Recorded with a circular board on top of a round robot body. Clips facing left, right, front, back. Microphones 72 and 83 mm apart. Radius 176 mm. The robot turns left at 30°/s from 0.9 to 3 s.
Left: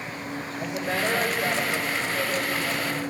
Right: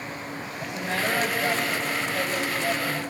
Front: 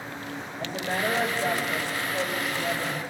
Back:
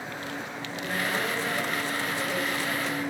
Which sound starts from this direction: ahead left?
A woman speaking, at 0.6 s.